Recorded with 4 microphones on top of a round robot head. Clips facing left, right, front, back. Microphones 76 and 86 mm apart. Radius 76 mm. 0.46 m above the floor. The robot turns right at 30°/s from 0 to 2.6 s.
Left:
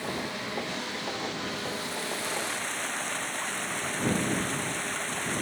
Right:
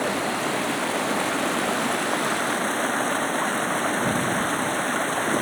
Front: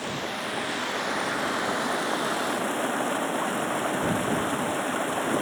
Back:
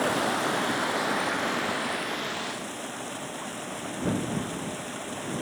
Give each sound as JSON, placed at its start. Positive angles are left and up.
{"t": 0.0, "sound": "running water", "azimuth_deg": -125}